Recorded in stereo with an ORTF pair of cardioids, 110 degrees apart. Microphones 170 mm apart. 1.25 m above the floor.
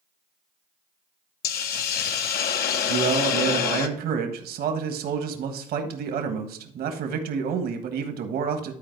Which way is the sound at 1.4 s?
65° left.